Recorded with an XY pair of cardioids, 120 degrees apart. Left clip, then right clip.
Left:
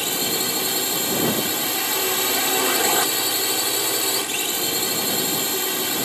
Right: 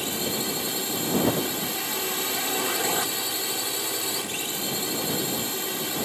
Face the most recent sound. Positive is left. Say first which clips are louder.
# left 5 dB
turn(degrees=35)